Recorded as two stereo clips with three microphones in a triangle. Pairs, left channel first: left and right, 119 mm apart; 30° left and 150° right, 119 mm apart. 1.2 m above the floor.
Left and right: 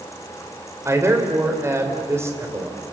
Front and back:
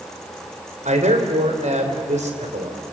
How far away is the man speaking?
About 4 m.